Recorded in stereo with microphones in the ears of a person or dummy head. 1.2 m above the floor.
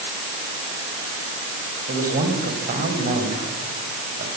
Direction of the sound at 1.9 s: 40° right (ahead or behind).